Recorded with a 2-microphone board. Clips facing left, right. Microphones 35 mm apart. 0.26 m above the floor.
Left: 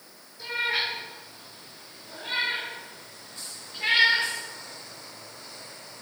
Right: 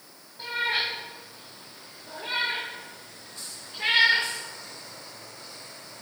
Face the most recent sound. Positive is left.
turn(degrees=-75)  # may be behind; listen again after turning